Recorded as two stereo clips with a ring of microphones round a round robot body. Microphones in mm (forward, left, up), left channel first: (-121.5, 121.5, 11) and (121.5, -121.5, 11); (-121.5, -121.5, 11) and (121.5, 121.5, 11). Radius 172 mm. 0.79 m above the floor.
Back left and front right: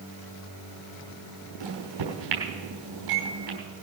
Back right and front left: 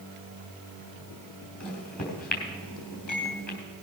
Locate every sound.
1.6 s a microwave: 70° right, 4 m